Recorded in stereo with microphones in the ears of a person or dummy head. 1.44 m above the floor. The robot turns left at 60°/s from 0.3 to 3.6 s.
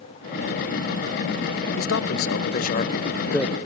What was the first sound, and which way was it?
A man speaking, 105° left.